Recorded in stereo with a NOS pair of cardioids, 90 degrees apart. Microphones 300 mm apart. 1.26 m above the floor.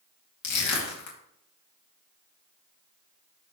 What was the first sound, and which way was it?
Crushing, 70° left.